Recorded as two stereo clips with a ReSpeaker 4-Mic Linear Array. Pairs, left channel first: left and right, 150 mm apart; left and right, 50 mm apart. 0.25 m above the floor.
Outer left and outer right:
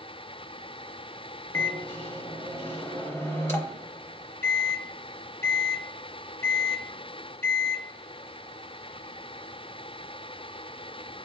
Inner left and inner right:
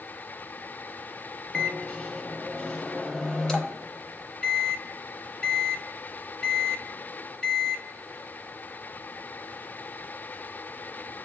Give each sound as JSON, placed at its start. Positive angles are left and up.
{"t": 1.5, "sound": "a microwave", "side_deg": 15, "distance_m": 0.7}